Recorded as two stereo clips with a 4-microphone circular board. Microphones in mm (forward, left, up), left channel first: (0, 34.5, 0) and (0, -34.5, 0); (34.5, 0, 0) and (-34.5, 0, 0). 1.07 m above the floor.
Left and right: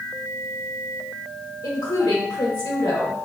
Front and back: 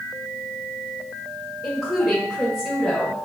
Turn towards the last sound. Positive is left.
turn(degrees=90)